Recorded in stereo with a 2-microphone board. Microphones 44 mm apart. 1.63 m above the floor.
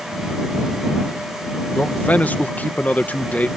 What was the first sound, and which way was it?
A man speaking, 40° left (ahead or behind).